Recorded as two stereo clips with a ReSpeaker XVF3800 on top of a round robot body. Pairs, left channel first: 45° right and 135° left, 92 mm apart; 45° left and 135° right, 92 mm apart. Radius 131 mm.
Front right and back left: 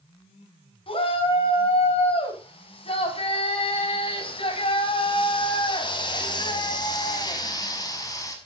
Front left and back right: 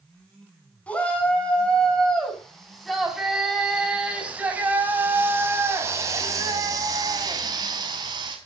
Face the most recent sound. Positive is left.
turn(degrees=-95)